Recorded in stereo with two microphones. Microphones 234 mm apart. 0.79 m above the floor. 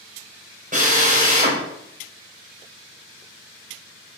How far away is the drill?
About 3.5 m.